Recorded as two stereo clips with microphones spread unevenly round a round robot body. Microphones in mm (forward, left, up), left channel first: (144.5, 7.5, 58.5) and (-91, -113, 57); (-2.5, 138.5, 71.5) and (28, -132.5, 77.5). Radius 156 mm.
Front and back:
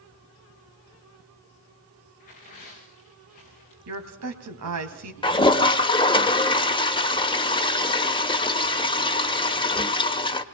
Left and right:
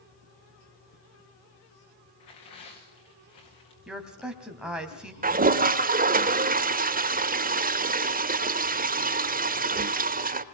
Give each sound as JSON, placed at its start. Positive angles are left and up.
{"t": 2.2, "sound": "tearing paper", "azimuth_deg": 90, "distance_m": 5.5}
{"t": 3.9, "sound": "a woman speaking", "azimuth_deg": -170, "distance_m": 2.5}
{"t": 5.2, "sound": "a toilet flushing", "azimuth_deg": -40, "distance_m": 1.2}